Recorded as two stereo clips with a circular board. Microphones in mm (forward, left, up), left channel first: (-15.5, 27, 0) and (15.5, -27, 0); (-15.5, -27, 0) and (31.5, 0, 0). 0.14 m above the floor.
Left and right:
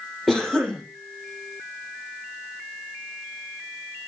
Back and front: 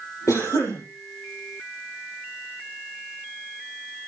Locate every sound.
0.3 s a cough: 150° right, 5.5 m